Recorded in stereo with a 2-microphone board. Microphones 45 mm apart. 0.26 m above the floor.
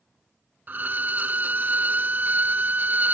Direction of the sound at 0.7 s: 35° right (ahead or behind).